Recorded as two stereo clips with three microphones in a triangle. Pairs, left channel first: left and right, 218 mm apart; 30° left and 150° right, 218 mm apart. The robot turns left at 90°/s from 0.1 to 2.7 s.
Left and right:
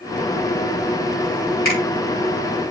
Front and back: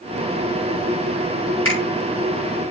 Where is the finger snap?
50° left, 6 m; by 1.8 s 35° left, 6 m.